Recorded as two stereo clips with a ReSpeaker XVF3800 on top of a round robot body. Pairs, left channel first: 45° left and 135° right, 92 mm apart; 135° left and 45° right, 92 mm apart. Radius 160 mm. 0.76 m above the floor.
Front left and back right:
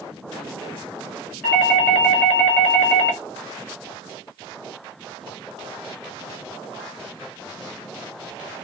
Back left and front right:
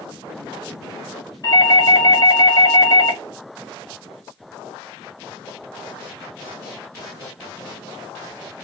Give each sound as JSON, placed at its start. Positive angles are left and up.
{"t": 1.4, "sound": "a doorbell", "azimuth_deg": 110, "distance_m": 2.0}